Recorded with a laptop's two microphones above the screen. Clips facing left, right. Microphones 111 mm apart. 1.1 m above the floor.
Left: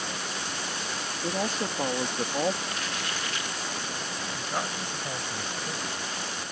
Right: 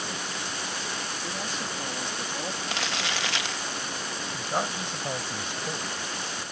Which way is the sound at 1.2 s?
45° left (ahead or behind).